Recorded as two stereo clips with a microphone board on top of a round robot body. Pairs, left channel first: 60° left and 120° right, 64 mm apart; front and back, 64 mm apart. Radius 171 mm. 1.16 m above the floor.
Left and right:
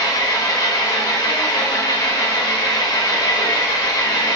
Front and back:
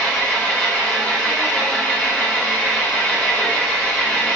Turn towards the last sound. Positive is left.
turn(degrees=70)